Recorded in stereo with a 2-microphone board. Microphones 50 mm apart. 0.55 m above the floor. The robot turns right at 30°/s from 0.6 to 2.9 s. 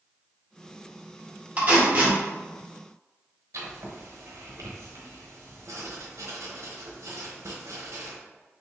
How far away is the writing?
About 1.0 m.